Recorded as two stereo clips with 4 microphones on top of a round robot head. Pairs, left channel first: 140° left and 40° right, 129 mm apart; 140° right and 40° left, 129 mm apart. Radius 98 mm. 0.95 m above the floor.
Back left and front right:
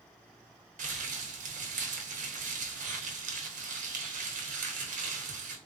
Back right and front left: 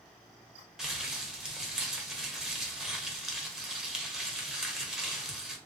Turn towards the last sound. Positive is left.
turn(degrees=-45)